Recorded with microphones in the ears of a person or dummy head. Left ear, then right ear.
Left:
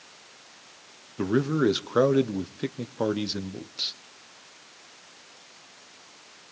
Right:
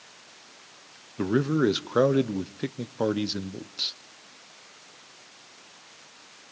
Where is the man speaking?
Centre (ahead or behind), 0.7 m.